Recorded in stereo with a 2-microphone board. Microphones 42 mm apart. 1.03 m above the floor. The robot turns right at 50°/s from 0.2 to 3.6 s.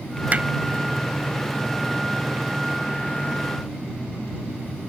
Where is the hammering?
35° right (ahead or behind); by 0.5 s 30° right (ahead or behind).